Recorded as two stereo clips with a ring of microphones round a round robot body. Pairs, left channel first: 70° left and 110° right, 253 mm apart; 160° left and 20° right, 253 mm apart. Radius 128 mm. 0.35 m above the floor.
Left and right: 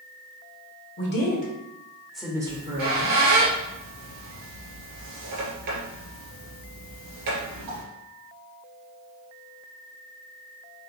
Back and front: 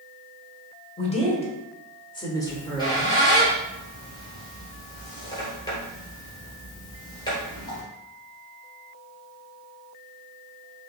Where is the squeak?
125° right, 2.0 m.